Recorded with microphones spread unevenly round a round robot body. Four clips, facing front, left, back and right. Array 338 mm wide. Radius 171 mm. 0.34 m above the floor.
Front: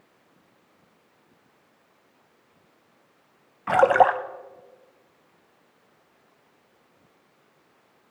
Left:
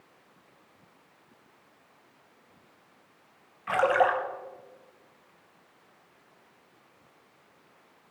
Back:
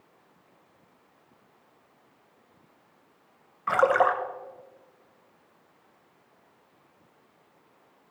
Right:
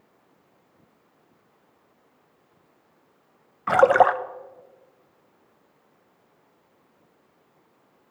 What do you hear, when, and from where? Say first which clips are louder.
3.7 s a splash: right 7 dB, front 4 dB; 45° right, 0.6 m